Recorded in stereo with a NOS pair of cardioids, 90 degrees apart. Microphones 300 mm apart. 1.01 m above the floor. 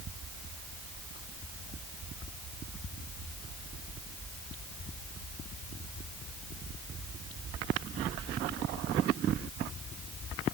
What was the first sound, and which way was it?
Only background noise.